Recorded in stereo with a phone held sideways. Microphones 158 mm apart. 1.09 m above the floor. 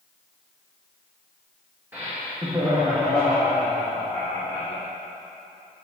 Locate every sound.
1.9 s laughter: 15° right (ahead or behind), 0.9 m; by 4.8 s 10° left (ahead or behind), 2.5 m